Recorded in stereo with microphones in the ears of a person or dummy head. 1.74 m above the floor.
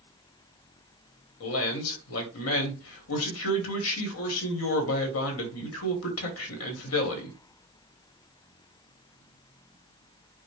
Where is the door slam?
I don't hear a door slam.